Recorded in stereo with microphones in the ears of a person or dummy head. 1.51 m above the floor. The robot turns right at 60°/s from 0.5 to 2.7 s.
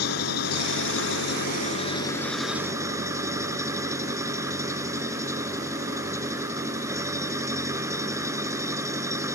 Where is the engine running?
65° left; by 9.4 s 165° right.